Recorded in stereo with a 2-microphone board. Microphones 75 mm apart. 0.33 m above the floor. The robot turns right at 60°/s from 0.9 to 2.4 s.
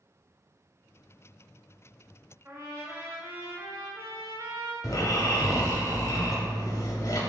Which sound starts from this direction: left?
Snoring, at 4.8 s.